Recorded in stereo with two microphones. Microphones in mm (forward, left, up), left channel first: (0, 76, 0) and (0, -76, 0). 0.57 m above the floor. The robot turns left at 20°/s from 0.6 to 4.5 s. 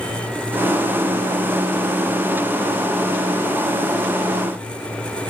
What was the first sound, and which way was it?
Only background noise.